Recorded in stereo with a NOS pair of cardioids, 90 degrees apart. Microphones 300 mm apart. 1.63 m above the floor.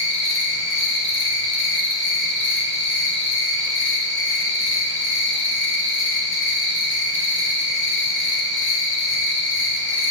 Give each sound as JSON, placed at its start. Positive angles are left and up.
{"t": 0.0, "sound": "an insect", "azimuth_deg": 40, "distance_m": 2.5}